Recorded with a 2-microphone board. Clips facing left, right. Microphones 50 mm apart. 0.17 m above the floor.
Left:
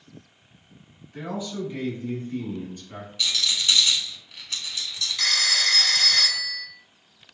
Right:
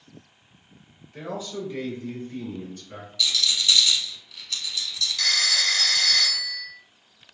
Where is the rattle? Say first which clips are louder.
Right 1 dB; 30° left (ahead or behind), 0.9 m.